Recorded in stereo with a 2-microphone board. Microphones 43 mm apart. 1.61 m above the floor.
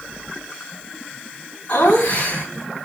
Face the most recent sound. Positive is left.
turn(degrees=60)  # may be behind; listen again after turning